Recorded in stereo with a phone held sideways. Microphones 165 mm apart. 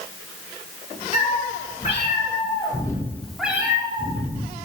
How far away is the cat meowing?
About 3 m.